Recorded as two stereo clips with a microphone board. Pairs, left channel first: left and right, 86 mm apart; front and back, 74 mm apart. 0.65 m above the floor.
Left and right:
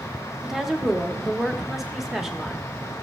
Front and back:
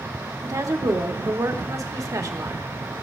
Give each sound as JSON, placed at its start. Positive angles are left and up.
{"t": 0.4, "sound": "a woman speaking", "azimuth_deg": -175, "distance_m": 0.9}